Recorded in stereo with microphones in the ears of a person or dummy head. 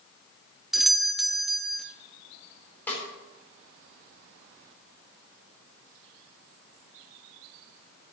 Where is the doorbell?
5° right (ahead or behind), 0.6 m.